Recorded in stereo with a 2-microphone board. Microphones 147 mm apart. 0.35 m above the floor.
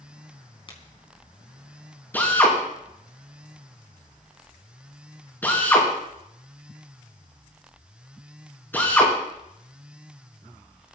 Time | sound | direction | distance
0.7 | a crack | 35° left (ahead or behind) | 4 m
2.1 | a drill | 15° left (ahead or behind) | 5.5 m